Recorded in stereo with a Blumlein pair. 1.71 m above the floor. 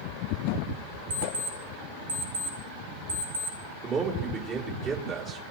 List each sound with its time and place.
1.1 s an alarm clock: 70° right, 6.5 m
3.8 s a man speaking: 30° right, 4.5 m